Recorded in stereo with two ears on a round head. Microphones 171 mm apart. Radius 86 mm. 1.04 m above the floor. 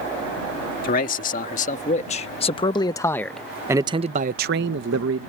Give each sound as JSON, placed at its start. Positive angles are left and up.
{"t": 0.8, "sound": "a man speaking", "side_deg": 45}